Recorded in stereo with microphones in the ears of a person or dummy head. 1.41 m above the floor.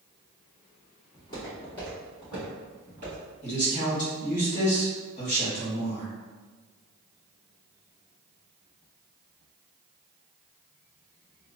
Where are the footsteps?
20° left (ahead or behind), 1.6 m; by 3.2 s 25° right (ahead or behind), 1.5 m.